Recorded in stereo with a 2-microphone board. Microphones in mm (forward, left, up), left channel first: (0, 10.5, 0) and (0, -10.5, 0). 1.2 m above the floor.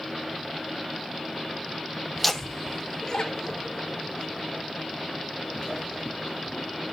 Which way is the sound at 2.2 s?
5° left (ahead or behind).